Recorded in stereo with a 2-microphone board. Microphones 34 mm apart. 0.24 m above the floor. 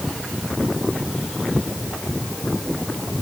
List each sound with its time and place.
Only background noise.